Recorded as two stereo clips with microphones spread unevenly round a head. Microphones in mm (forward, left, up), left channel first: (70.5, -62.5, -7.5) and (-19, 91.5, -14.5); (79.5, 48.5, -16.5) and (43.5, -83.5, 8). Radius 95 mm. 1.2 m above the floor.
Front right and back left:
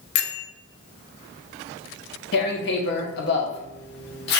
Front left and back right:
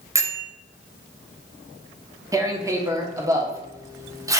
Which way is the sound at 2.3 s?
35° right.